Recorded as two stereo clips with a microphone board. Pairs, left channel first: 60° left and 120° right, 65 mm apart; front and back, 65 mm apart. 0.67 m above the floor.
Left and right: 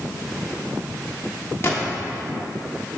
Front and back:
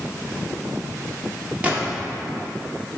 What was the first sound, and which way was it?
A gunshot, 110° left.